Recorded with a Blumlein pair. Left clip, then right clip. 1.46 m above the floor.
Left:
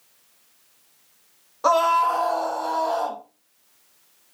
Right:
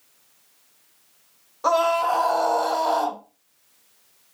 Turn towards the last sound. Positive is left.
turn(degrees=-60)